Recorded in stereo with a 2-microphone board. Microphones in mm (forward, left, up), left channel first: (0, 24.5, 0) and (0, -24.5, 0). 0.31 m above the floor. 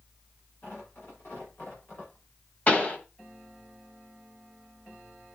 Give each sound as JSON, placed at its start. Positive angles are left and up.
{"t": 0.6, "sound": "tearing paper", "side_deg": 45, "distance_m": 8.5}
{"t": 2.7, "sound": "a pop", "side_deg": 30, "distance_m": 1.9}